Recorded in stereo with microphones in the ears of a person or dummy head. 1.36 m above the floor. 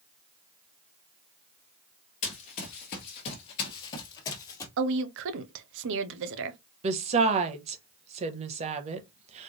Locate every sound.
2.2 s running footsteps: 30° left (ahead or behind), 1.7 m; by 4.7 s 15° left (ahead or behind), 2.0 m
4.8 s a woman speaking: 70° right (ahead or behind), 0.9 m
6.8 s a woman speaking: 35° right (ahead or behind), 1.0 m